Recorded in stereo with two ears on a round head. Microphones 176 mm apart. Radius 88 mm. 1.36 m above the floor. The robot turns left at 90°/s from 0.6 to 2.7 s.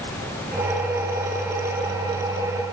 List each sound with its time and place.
Only background noise.